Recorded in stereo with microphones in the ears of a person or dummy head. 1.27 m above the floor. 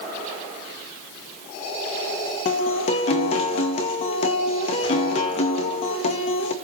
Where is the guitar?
45° left (ahead or behind), 0.8 m.